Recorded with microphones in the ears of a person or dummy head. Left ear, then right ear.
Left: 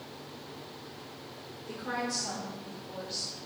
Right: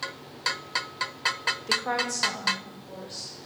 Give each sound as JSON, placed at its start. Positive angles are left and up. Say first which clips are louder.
{"t": 1.7, "sound": "a woman speaking", "louder": "right 5 dB", "side_deg": -60, "distance_m": 0.7}